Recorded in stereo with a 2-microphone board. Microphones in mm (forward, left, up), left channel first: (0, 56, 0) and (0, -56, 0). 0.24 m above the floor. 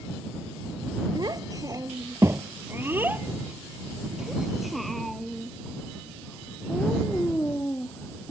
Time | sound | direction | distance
1.1 | a child speaking | 40° right (ahead or behind) | ?